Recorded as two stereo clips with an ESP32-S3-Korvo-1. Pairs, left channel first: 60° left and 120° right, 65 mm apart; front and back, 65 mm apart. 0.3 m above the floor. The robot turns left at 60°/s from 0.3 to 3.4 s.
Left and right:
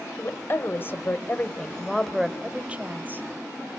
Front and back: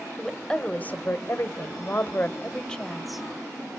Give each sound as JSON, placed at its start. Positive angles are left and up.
{"t": 0.2, "sound": "a woman speaking", "azimuth_deg": 75, "distance_m": 1.0}